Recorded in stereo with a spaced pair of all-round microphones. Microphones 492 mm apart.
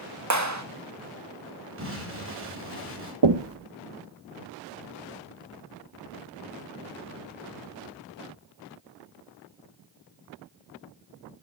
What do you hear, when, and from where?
0.3 s a clap: 35° right (ahead or behind), 1.8 m
1.8 s an explosion: 25° right (ahead or behind), 7.5 m
3.2 s knocking: 55° right (ahead or behind), 1.1 m